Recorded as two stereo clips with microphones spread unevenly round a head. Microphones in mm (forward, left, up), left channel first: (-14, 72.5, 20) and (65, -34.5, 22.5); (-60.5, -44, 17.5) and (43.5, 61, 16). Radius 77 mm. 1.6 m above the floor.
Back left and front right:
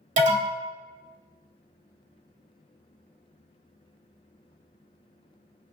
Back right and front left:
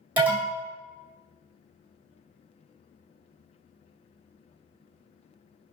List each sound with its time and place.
0.2 s an alarm: 35° right, 1.4 m